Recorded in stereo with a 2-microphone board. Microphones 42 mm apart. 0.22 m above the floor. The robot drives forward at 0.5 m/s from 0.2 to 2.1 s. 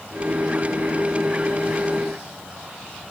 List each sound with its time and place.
Only background noise.